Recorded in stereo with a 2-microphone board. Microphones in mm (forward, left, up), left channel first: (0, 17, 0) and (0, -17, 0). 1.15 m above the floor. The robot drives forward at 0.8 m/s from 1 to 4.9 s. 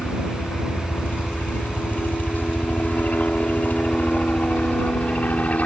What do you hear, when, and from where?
0.0 s a helicopter: 55° left (ahead or behind); by 5.7 s 45° left (ahead or behind)